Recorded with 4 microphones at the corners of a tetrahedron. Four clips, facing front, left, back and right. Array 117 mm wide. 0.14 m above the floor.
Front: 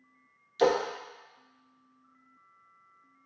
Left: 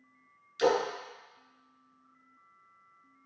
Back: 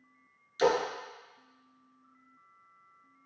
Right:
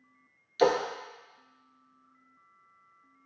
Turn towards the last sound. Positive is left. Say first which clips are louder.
# right 2 dB, front 2 dB
turn(degrees=-55)